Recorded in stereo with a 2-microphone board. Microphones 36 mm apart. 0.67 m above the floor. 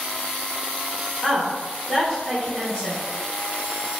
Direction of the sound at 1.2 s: 5° left (ahead or behind).